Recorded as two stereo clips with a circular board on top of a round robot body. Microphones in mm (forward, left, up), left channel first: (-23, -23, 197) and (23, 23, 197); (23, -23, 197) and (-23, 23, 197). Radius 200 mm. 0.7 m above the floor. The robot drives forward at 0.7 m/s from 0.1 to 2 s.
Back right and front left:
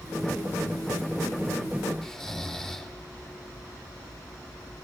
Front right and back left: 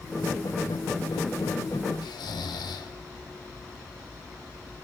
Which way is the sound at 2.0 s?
50° right.